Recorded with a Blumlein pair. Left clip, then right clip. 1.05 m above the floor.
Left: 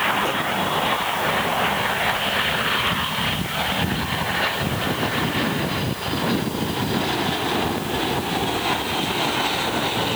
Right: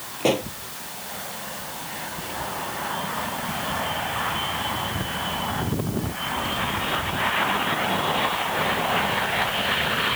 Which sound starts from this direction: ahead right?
A pop, at 0.2 s.